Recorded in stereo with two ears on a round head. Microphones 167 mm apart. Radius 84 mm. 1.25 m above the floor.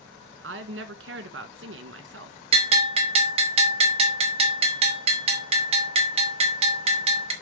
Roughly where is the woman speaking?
Right.